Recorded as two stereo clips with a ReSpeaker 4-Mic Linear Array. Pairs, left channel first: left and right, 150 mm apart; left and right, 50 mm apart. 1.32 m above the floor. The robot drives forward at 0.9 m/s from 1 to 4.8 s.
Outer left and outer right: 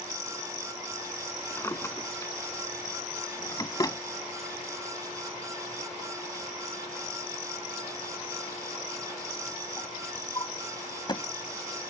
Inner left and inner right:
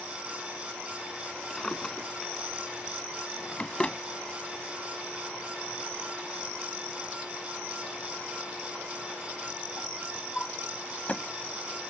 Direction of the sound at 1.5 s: 20° left (ahead or behind).